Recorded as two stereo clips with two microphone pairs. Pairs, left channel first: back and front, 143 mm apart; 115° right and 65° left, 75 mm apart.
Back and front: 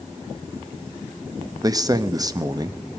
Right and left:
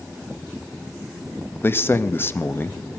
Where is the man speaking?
60° right, 0.8 m.